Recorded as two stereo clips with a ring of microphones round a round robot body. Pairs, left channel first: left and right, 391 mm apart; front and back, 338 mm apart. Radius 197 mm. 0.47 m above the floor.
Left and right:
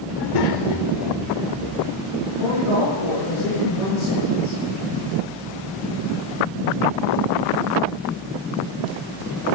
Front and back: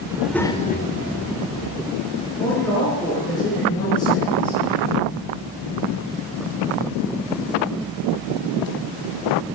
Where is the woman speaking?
85° left, 7.5 m.